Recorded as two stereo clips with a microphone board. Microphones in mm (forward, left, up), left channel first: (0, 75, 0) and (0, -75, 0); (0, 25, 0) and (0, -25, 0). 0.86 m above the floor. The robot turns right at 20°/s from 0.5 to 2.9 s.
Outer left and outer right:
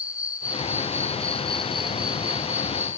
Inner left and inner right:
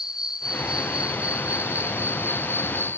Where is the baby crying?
No baby crying in this recording.